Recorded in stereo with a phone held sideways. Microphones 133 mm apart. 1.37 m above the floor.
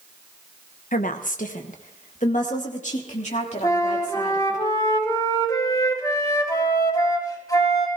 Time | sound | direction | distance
0.9 | a woman speaking | 80° left | 1.1 m
3.6 | a flute | 30° left (ahead or behind) | 4 m